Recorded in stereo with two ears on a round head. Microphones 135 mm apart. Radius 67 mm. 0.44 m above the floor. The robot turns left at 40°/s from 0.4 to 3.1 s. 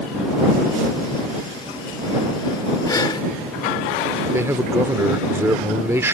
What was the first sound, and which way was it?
Breathing, 25° left (ahead or behind).